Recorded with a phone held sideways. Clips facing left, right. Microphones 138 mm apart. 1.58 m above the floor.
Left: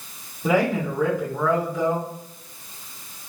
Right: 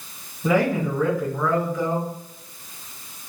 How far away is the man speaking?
About 1.5 m.